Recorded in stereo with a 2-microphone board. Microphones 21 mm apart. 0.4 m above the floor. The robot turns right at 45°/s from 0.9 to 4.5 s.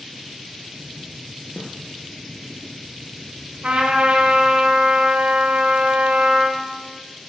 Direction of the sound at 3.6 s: 135° right.